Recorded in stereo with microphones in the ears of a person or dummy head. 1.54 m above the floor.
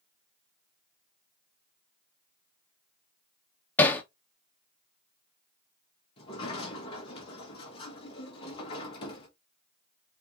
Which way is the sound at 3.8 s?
10° left (ahead or behind).